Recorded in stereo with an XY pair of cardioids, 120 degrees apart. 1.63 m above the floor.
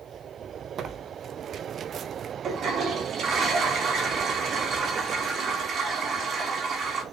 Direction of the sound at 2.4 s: 55° right.